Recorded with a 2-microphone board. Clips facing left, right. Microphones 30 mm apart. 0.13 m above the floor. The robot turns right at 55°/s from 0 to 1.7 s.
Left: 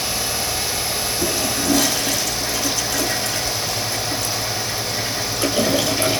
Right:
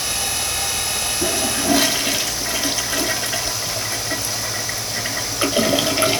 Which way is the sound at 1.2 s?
20° right (ahead or behind).